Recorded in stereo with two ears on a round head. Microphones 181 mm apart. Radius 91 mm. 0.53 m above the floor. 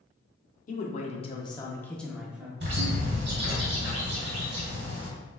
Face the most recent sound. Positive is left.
turn(degrees=-60)  # may be behind; listen again after turning